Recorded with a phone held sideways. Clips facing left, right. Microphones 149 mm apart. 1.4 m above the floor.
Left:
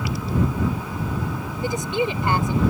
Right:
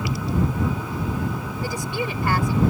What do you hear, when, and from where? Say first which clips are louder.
1.6 s a woman speaking: left 5 dB; 20° left (ahead or behind)